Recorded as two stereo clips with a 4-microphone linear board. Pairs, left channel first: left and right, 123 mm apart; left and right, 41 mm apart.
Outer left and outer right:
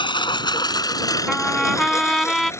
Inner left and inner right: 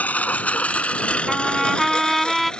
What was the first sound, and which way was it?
A lawn mower, 40° left (ahead or behind).